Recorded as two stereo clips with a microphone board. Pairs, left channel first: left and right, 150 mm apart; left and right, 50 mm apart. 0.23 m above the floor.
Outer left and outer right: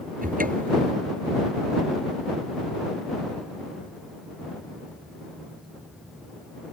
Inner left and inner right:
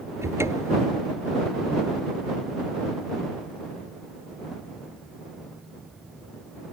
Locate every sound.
0.2 s a cupboard door: 70° right (ahead or behind)